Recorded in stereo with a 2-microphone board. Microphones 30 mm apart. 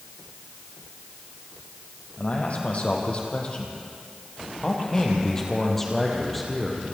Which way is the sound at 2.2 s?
50° left (ahead or behind).